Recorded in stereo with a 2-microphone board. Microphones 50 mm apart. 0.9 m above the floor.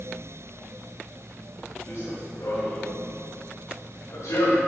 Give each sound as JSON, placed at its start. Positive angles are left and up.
{"t": 1.9, "sound": "running footsteps", "side_deg": 50, "distance_m": 4.5}